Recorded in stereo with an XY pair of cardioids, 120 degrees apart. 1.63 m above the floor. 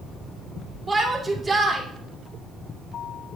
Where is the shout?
25° right, 2.0 m.